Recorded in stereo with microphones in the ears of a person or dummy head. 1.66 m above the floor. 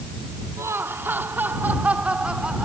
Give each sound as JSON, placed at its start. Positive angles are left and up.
{"t": 0.6, "sound": "laughter", "side_deg": -15}